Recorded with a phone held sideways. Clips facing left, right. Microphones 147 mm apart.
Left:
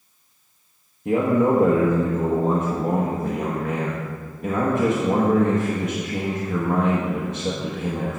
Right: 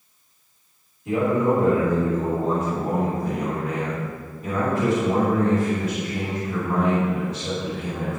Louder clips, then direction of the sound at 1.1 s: Left 2 dB; 55° left (ahead or behind).